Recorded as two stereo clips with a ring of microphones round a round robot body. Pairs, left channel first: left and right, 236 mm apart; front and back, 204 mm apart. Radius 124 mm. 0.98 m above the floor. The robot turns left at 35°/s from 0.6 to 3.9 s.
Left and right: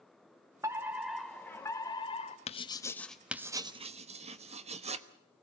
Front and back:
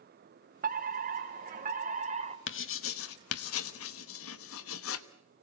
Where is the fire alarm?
160° right, 2.0 m; by 2.4 s 140° left, 2.0 m.